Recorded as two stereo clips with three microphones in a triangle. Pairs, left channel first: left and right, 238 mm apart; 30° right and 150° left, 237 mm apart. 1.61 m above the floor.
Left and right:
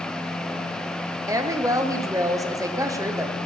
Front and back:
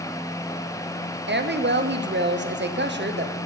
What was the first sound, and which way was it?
A woman speaking, 165° right.